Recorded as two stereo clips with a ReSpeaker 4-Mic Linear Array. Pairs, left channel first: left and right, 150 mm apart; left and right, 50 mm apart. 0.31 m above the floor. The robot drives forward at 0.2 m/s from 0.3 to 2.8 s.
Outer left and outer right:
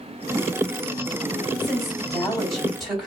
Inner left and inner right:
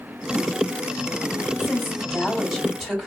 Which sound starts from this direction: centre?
A woman speaking, at 1.6 s.